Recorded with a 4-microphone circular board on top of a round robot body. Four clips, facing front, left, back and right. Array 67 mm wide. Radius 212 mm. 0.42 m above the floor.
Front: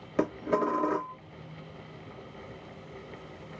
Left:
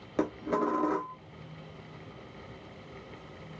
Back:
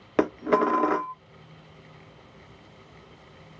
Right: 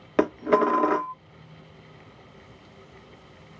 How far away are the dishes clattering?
About 0.9 m.